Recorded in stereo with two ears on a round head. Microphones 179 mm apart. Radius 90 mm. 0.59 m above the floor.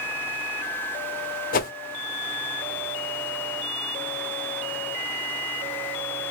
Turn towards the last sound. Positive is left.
turn(degrees=45)  # may be behind; listen again after turning